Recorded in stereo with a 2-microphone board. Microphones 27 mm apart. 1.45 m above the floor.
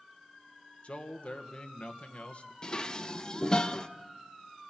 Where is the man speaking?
50° left (ahead or behind), 1.5 m.